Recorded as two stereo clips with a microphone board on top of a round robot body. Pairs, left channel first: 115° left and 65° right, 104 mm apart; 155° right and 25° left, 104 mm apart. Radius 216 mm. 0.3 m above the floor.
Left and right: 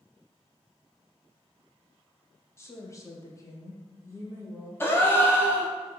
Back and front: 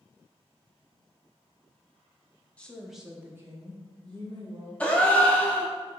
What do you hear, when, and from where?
2.6 s a woman speaking: 135° left, 1.0 m; by 4.7 s 50° left, 1.6 m
4.8 s a gasp: 140° left, 1.1 m